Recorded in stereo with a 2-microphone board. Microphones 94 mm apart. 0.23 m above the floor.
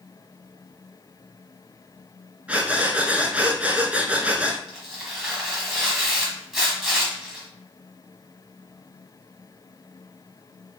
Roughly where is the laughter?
I don't hear laughter.